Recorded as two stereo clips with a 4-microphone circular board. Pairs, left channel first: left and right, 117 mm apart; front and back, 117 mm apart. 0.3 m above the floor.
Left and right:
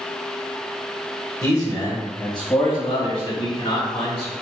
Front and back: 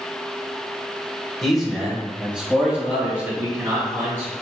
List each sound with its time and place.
1.4 s a man speaking: 85° left, 1.1 m; by 4.3 s 115° left, 2.5 m